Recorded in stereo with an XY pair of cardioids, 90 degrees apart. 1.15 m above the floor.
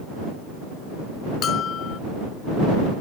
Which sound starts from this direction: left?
A bell, at 1.4 s.